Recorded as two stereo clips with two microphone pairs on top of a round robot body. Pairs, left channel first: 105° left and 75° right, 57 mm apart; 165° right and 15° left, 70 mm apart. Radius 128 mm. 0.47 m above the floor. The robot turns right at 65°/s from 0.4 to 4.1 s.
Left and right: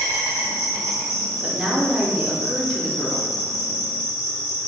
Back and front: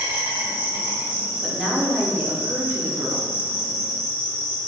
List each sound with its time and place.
0.0 s an insect: 70° right, 0.9 m; by 4.7 s 170° left, 0.9 m
1.4 s a woman speaking: 100° right, 0.7 m; by 3.3 s 25° left, 0.7 m